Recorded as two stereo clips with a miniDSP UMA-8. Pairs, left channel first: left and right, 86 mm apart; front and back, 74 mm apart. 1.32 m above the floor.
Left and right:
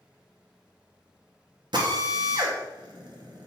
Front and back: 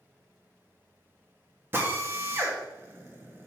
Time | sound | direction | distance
1.7 | a drill | 120° right | 1.6 m